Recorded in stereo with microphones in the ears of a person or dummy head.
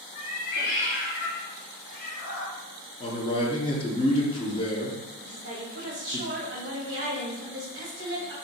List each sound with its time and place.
0.1 s a cat meowing: 40° left (ahead or behind), 0.9 m; by 2.6 s 35° left (ahead or behind), 1.4 m
3.0 s a man speaking: 20° left (ahead or behind), 0.6 m
5.2 s a woman speaking: 60° right (ahead or behind), 1.5 m